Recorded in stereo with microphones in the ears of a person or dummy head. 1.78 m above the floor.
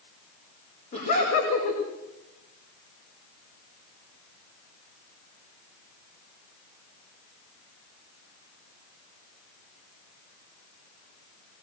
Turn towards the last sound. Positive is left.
turn(degrees=40)  # may be behind; listen again after turning